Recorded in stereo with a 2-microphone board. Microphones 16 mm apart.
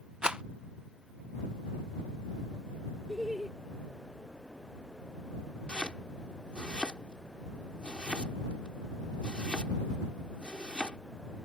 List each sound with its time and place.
0.2 s a rattle: 70° right (ahead or behind)
3.1 s laughter: 20° right (ahead or behind)
5.7 s chopping: 85° left